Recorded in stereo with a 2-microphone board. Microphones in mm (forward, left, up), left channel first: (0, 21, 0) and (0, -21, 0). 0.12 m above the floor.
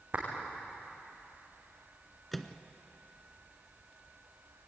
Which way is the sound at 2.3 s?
5° left (ahead or behind).